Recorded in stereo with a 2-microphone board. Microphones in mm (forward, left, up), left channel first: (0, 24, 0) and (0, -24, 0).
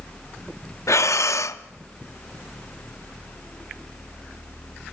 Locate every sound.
0.9 s breathing: 70° left (ahead or behind), 0.6 m